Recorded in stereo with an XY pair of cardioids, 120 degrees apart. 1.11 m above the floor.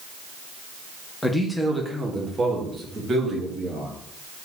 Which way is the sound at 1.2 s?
10° left.